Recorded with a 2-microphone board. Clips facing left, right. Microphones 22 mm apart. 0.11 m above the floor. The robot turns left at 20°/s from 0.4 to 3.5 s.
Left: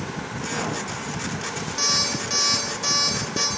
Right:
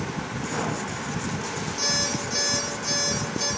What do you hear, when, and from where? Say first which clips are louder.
1.8 s an alarm clock: left 3 dB; 150° left, 8.5 m; by 3.5 s 115° left, 8.5 m